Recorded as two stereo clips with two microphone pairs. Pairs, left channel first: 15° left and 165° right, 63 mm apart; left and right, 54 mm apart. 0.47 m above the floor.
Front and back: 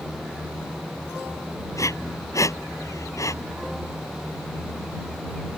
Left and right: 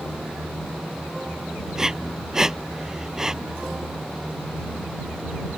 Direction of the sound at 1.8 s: 10° right.